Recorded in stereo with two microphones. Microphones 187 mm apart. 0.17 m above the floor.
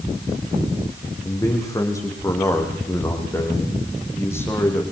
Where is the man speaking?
20° left (ahead or behind), 8 m; by 4.8 s 15° left (ahead or behind), 9.5 m.